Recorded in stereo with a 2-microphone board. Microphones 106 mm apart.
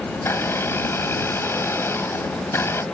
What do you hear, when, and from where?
0.1 s a blender: 25° left (ahead or behind)